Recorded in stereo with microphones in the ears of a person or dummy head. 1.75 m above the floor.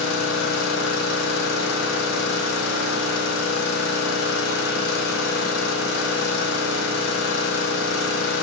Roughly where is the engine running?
Left.